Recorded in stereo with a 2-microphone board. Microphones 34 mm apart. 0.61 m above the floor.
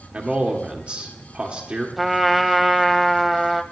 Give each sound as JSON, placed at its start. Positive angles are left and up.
{"t": 0.1, "sound": "a man speaking", "side_deg": -35, "distance_m": 1.4}
{"t": 2.0, "sound": "a trumpet", "side_deg": -5, "distance_m": 0.8}